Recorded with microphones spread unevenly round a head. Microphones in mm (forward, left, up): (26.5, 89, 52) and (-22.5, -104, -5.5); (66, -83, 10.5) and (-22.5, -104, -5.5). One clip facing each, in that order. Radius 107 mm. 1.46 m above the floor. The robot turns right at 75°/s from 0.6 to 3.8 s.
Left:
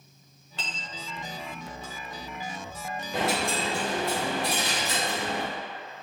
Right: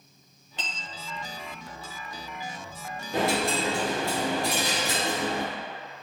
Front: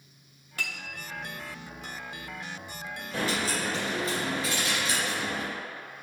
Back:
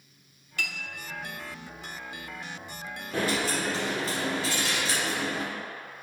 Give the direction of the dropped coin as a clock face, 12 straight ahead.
5 o'clock.